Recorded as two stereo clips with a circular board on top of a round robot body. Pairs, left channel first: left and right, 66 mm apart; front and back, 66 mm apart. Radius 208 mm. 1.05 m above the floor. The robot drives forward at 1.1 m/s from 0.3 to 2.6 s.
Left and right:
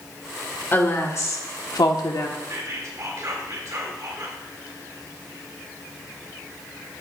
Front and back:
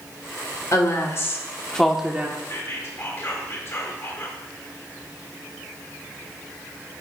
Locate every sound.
0.7 s a woman speaking: 35° left, 1.7 m; by 2.4 s 120° left, 1.1 m
2.5 s whispering: 45° right, 1.8 m; by 4.4 s 50° right, 1.7 m